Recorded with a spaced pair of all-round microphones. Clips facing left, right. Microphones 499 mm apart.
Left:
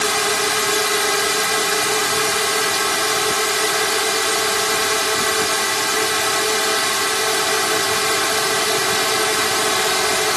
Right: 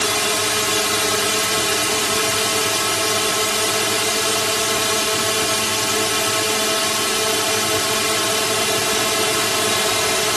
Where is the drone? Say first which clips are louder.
Left 1 dB; 50° right (ahead or behind).